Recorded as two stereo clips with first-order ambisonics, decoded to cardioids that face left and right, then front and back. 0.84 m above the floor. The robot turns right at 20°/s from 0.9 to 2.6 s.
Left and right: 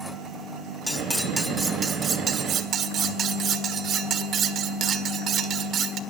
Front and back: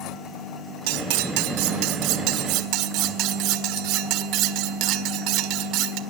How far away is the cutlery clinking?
About 1.5 m.